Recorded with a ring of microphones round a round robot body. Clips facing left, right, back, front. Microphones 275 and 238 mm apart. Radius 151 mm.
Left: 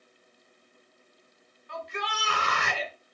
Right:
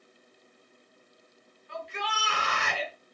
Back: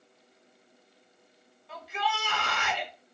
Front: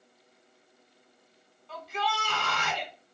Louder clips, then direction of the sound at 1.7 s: Left 1 dB, even; 100° left.